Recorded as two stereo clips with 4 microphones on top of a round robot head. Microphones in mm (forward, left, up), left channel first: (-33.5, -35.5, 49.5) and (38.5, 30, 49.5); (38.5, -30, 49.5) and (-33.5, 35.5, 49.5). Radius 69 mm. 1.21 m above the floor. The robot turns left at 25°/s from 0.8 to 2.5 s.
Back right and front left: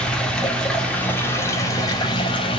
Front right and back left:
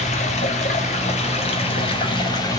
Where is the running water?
55° right, 2.5 m; by 2.6 s 100° right, 2.5 m.